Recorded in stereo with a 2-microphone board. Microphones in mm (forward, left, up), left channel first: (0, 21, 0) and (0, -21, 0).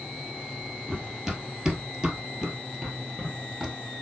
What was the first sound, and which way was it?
Running footsteps, 10° right (ahead or behind).